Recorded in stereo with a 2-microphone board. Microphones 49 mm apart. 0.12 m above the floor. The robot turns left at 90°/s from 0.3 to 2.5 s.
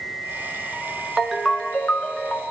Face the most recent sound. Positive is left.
turn(degrees=70)